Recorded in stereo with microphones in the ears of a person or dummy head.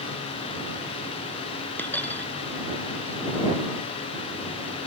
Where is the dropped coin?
10° left (ahead or behind).